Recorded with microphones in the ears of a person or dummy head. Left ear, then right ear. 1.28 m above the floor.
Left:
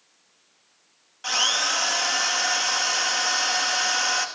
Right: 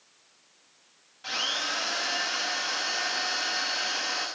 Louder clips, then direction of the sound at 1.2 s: Left 7 dB; 45° left (ahead or behind).